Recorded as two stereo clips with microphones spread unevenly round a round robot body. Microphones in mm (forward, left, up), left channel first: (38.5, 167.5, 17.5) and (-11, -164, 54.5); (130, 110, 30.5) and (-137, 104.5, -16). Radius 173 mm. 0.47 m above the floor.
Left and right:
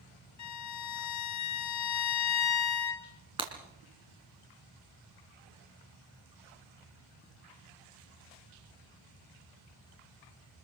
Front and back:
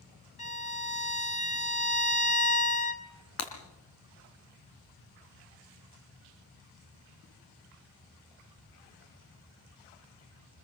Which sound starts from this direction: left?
A violin, at 0.4 s.